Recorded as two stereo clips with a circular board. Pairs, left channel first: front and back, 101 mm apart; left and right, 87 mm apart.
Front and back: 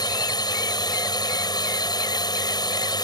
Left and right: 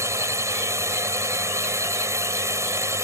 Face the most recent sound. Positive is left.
turn(degrees=-40)